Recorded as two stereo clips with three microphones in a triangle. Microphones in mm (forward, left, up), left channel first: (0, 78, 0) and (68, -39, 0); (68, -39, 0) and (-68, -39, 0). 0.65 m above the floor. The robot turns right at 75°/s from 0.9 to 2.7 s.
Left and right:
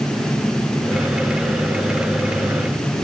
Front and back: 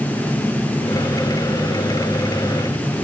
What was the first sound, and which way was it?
Only background noise.